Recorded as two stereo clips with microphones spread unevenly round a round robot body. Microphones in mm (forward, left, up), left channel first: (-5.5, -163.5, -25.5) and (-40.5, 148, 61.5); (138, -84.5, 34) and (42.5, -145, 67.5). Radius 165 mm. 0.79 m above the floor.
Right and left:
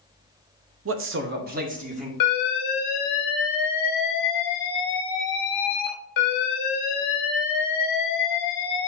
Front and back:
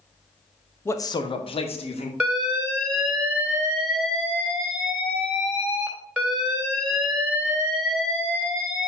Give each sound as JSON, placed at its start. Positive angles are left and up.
{"t": 0.8, "sound": "a man speaking", "azimuth_deg": 55, "distance_m": 0.7}
{"t": 2.2, "sound": "an alarm", "azimuth_deg": -60, "distance_m": 3.0}